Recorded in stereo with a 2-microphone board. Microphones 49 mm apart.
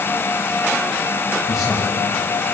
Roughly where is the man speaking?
Centre.